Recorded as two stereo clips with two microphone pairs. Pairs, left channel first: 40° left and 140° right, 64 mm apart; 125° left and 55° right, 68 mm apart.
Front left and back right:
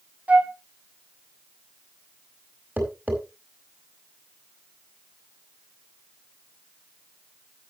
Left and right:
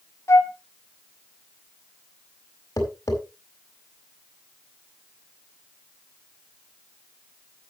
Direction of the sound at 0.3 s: 160° left.